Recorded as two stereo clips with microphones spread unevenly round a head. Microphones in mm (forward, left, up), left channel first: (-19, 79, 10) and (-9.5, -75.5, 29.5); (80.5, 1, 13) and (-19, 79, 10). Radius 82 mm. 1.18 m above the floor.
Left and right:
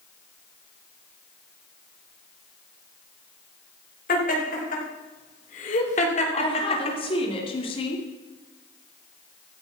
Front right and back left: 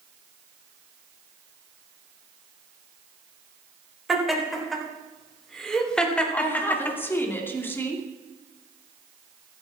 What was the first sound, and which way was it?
Laughter, 55° left.